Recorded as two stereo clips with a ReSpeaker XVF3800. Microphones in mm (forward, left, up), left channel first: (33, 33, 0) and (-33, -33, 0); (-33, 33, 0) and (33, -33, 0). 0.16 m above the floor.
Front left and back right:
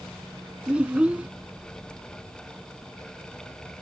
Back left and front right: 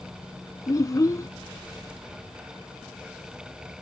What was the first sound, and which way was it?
A child speaking, 155° left.